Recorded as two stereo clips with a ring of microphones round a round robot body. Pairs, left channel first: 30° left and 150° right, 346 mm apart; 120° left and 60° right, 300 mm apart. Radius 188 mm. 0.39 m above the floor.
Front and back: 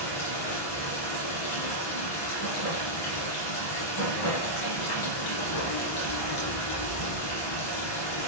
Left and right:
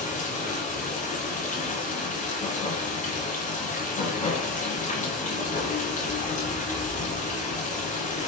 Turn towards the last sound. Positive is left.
turn(degrees=55)